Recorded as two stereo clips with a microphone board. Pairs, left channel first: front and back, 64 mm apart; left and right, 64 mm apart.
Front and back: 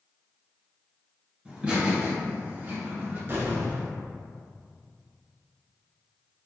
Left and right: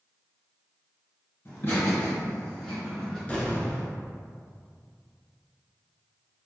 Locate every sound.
1.4 s laughter: 115° left, 1.6 m; by 3.2 s 175° left, 1.5 m
3.3 s an explosion: 155° left, 0.8 m